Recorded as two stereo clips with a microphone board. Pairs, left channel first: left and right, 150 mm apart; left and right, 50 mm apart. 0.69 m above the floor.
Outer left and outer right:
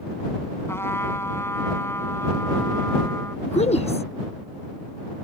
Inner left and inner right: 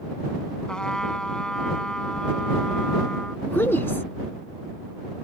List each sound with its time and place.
0.7 s a trumpet: 15° left (ahead or behind)
3.5 s a woman speaking: 45° left (ahead or behind)